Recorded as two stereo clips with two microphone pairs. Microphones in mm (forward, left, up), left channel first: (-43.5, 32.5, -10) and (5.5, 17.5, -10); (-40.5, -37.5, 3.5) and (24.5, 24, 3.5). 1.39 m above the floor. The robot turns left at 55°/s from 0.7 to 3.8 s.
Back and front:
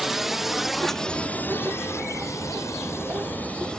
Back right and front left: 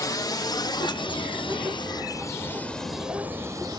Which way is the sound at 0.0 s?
100° right.